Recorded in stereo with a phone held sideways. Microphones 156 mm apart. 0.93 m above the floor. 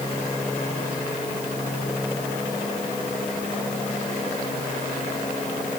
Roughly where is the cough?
No cough in this recording.